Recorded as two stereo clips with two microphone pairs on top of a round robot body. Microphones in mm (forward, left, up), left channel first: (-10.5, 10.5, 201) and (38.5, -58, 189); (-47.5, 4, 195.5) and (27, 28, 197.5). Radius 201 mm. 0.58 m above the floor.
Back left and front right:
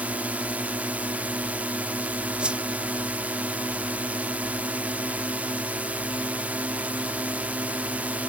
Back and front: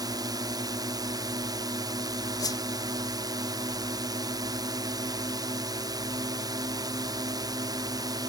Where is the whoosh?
130° right.